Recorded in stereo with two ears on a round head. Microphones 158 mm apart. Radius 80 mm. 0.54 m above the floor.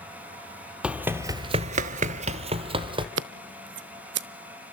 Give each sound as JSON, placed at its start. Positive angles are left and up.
{"t": 0.8, "sound": "running footsteps", "side_deg": -5, "distance_m": 1.1}
{"t": 3.2, "sound": "scissors", "side_deg": -65, "distance_m": 0.7}